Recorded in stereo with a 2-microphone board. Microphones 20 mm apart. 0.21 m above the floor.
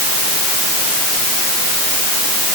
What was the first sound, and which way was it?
Only background noise.